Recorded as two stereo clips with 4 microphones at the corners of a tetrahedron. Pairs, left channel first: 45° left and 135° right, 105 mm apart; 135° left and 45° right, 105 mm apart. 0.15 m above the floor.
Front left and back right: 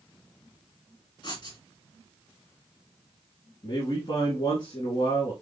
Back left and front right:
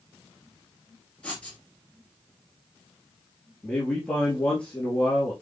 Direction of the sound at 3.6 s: 60° left.